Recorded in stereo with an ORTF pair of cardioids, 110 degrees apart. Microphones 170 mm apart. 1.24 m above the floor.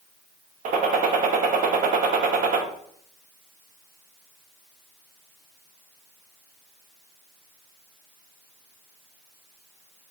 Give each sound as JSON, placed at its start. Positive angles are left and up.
{"t": 0.7, "sound": "a gunshot", "azimuth_deg": -55, "distance_m": 0.8}